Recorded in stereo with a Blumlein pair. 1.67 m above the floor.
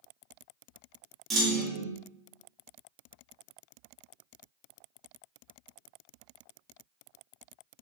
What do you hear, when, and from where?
1.3 s a clunk: 20° right, 0.7 m